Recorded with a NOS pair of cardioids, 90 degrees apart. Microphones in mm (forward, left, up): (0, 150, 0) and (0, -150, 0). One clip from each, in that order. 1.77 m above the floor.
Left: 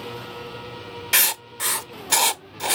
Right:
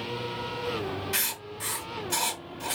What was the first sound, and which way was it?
Writing, 60° left.